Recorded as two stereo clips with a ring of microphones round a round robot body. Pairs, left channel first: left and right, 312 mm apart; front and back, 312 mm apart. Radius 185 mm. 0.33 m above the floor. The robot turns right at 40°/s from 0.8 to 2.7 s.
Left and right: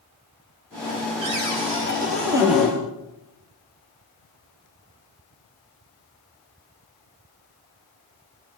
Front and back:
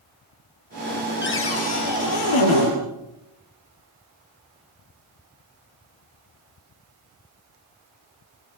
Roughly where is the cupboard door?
Ahead right.